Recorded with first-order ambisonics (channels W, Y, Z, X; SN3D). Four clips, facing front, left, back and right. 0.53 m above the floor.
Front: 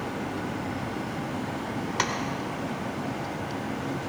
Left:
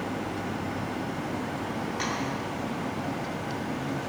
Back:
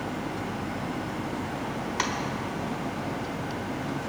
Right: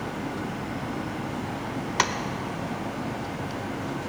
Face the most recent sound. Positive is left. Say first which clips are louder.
# right 8 dB, front 1 dB
turn(degrees=-80)